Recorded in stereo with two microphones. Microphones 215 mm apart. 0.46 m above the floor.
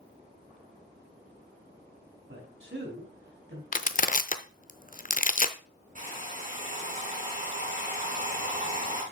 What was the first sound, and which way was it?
A man speaking, 70° right (ahead or behind).